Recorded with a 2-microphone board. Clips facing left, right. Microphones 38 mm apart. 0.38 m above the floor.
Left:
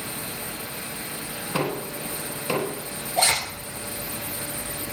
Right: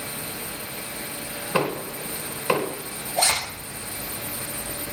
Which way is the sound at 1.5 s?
20° right (ahead or behind).